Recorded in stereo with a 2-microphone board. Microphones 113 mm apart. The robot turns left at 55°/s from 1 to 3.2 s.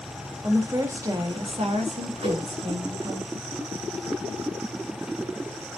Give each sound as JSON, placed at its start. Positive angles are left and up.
{"t": 0.4, "sound": "a woman speaking", "azimuth_deg": -30, "distance_m": 1.7}
{"t": 2.2, "sound": "a whoosh", "side_deg": -80, "distance_m": 5.5}